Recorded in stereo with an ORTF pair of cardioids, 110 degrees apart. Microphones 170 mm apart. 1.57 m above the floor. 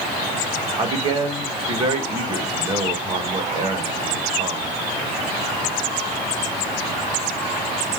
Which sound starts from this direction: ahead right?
A man speaking, at 0.8 s.